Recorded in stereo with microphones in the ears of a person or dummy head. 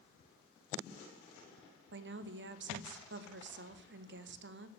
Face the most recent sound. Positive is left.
turn(degrees=-60)  # may be behind; listen again after turning